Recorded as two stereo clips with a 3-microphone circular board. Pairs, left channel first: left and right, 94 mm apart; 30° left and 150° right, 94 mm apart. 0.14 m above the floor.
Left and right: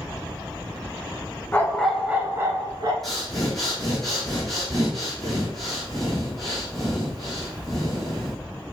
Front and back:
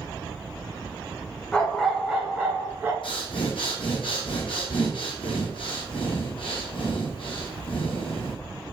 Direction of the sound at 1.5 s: 90° left.